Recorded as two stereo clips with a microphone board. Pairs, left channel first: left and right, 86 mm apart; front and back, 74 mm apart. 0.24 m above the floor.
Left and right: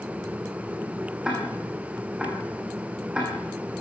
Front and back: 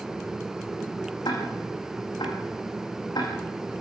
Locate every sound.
1.2 s ticking: 10° right, 5.5 m